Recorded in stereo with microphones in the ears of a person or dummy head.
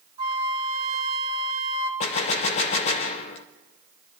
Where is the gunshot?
35° left (ahead or behind), 0.7 m.